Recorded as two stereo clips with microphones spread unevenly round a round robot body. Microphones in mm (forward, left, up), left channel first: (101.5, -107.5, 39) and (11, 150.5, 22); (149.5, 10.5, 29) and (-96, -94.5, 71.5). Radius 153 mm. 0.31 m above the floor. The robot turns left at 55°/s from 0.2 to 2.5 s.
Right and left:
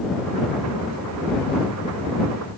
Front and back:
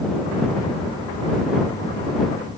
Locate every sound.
Only background noise.